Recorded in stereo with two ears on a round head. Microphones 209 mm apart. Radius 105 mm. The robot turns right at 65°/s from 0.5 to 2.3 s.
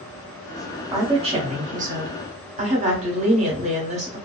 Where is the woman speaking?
150° right, 1.0 m; by 4.2 s 60° right, 1.0 m.